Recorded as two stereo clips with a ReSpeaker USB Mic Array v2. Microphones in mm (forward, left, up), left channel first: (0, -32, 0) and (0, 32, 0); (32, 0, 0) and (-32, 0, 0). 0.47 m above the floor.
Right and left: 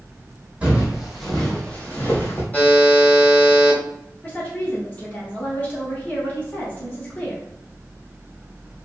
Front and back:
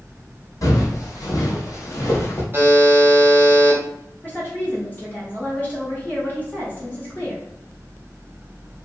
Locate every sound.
0.6 s footsteps: 20° left, 1.0 m; by 2.4 s 40° right, 1.1 m
2.5 s a buzzer: 145° right, 1.0 m
4.2 s a woman speaking: 40° right, 1.6 m